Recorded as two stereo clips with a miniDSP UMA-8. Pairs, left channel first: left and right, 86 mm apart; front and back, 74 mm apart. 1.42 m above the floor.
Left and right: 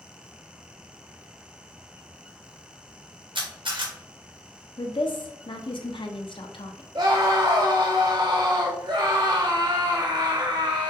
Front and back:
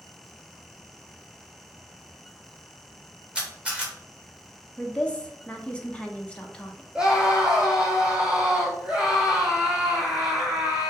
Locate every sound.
3.4 s a camera shutter: 105° right, 1.5 m
4.8 s a woman speaking: 75° left, 0.8 m
7.0 s a scream: 105° right, 0.7 m